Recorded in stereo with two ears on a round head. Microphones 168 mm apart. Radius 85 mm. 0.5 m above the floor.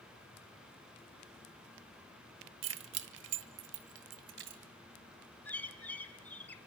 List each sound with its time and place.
2.6 s keys jangling: 65° right (ahead or behind), 1.0 m; by 4.6 s 60° right (ahead or behind), 2 m
5.5 s a bird: 10° left (ahead or behind), 1.4 m